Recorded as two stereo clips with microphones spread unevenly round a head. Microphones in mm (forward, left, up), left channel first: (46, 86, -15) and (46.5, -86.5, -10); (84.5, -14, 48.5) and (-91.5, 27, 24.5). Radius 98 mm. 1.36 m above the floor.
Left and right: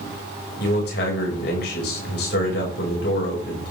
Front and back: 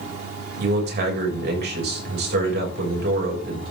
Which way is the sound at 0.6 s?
135° left.